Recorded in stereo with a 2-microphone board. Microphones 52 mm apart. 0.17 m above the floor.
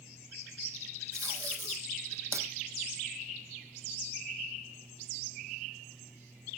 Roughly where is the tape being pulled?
Right.